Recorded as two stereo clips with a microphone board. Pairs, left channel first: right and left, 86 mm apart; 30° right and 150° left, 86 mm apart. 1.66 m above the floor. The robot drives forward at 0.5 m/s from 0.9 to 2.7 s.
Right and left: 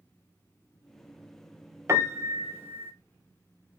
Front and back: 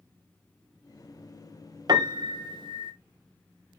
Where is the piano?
140° left, 1.0 m; by 2.9 s 150° left, 1.3 m.